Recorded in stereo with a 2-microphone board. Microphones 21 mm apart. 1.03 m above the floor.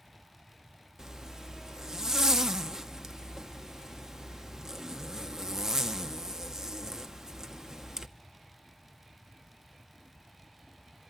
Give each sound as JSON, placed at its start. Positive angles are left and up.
{"t": 1.0, "sound": "a zipper", "side_deg": -30, "distance_m": 0.6}